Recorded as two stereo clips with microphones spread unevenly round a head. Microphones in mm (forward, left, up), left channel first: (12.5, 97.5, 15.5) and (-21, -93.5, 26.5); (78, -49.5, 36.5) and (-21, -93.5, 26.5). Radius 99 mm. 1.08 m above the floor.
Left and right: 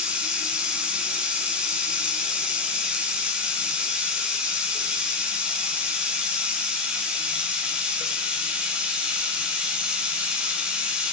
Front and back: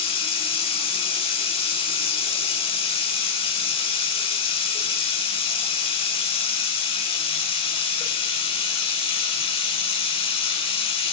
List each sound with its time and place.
0.0 s running water: 15° right, 3 m